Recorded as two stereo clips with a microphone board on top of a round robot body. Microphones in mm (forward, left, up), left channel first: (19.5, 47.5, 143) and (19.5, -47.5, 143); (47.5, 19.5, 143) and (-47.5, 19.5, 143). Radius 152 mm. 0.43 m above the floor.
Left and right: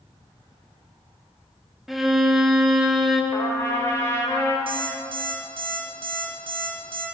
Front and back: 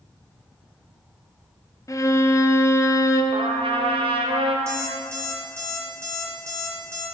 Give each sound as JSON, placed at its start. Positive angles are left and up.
{"t": 1.9, "sound": "a violin", "azimuth_deg": 0, "distance_m": 0.9}
{"t": 3.3, "sound": "a trumpet", "azimuth_deg": 155, "distance_m": 1.1}
{"t": 4.7, "sound": "an alarm clock", "azimuth_deg": -120, "distance_m": 1.6}